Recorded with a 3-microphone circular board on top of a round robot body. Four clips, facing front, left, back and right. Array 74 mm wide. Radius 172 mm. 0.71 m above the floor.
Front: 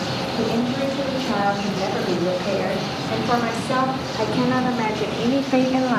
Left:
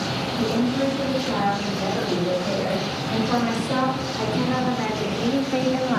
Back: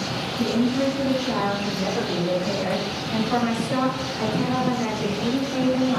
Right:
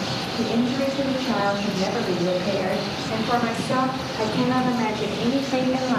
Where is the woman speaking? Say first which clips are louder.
Even, back 1 dB; 25° right, 4 m; by 6.0 s straight ahead, 1.4 m.